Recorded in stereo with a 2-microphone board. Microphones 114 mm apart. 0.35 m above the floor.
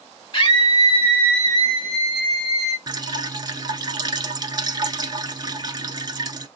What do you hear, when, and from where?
0.3 s a scream: 45° left (ahead or behind), 1.9 m; by 2.8 s centre (ahead or behind), 2.5 m
2.9 s dripping: 35° right (ahead or behind), 0.7 m